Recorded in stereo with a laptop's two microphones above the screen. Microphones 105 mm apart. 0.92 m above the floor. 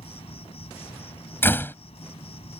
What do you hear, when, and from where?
0.0 s an insect: 70° left (ahead or behind)
1.4 s a door slam: 20° left (ahead or behind)